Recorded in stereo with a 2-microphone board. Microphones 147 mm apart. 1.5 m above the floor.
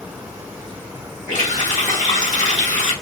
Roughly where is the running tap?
Left.